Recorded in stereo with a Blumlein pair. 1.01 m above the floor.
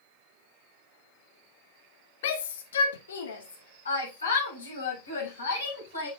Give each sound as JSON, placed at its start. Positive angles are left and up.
{"t": 2.2, "sound": "a shout", "azimuth_deg": 55, "distance_m": 1.3}